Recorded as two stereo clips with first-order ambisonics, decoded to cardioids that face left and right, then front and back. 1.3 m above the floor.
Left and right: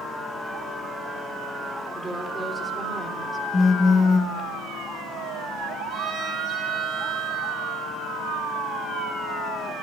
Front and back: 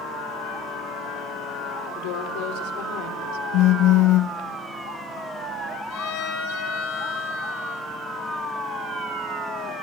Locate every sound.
1.9 s a woman speaking: 5° right, 3.5 m
3.5 s a phone buzzing: 20° left, 1.3 m
5.9 s a violin: 15° right, 5 m